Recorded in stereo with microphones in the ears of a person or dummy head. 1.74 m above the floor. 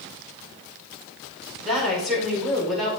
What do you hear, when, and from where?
1.6 s a woman speaking: 5° right (ahead or behind), 5 m